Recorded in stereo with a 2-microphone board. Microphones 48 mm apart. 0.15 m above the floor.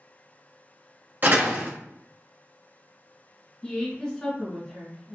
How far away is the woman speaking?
About 1.3 m.